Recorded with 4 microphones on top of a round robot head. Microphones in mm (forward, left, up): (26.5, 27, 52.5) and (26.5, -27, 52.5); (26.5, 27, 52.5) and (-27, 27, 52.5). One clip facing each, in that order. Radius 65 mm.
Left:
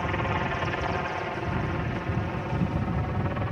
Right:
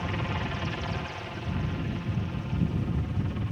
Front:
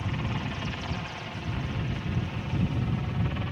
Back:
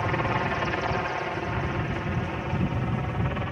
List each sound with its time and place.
0.0 s a helicopter: 155° left; by 3.5 s 125° left